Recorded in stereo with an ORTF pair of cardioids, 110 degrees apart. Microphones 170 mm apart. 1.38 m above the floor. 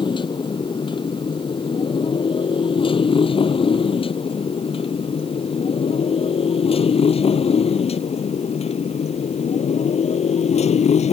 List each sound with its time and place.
0.0 s a motorcycle: 30° left; by 11.1 s 45° left